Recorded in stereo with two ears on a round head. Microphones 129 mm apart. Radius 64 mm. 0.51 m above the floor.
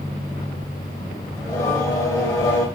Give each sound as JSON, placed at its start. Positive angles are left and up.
{"t": 1.4, "sound": "singing", "side_deg": 20, "distance_m": 1.1}